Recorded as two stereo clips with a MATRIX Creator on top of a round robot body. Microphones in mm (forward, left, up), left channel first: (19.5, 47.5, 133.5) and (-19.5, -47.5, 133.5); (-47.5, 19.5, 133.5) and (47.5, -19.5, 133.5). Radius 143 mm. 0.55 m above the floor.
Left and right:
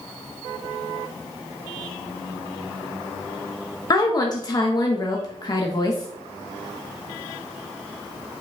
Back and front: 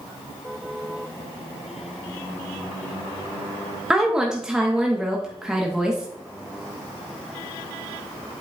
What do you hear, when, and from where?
3.9 s a woman speaking: 55° left, 1.1 m